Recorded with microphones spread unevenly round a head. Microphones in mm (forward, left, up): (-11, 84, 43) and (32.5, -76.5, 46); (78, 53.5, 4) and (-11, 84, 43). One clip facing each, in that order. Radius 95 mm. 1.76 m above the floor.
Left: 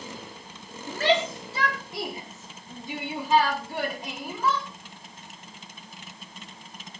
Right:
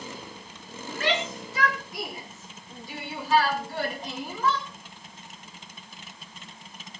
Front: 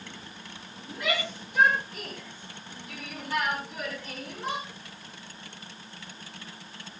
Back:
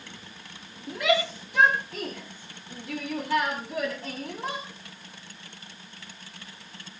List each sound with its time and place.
0.9 s a shout: 165° left, 4.5 m; by 4.7 s 170° right, 4.5 m